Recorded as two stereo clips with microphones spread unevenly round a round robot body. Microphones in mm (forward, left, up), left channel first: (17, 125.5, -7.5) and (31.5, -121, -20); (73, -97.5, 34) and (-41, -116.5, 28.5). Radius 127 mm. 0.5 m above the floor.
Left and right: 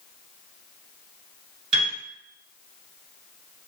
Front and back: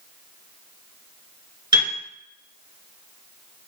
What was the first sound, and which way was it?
A piano, 120° right.